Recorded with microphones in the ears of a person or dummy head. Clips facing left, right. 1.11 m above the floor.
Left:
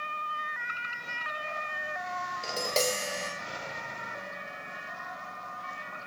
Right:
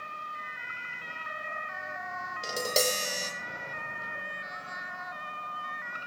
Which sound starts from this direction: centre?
Tapping, at 2.4 s.